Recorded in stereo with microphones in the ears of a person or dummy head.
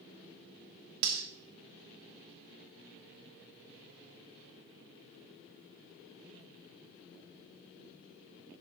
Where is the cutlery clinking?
55° right (ahead or behind), 1.1 m.